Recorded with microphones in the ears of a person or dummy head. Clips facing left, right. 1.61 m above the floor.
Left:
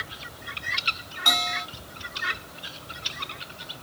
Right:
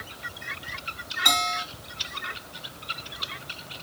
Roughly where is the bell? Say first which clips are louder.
Right 1 dB; right.